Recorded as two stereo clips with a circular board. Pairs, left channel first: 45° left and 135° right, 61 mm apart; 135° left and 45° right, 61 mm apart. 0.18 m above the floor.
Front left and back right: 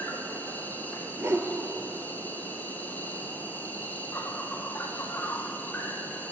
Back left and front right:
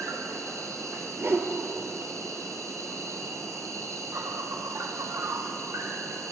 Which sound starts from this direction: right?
A whoosh, at 1.2 s.